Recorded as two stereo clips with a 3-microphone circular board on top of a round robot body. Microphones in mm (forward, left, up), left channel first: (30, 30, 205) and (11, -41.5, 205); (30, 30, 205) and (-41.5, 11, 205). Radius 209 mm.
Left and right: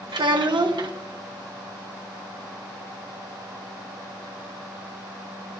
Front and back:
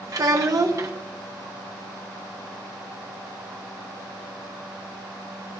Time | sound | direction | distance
0.1 | a child speaking | 120° right | 1.1 m